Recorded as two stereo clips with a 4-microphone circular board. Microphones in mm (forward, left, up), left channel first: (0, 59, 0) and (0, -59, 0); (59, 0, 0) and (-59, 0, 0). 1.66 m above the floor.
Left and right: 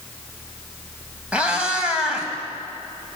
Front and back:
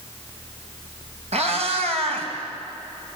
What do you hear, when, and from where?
1.3 s a cat meowing: 170° right, 4 m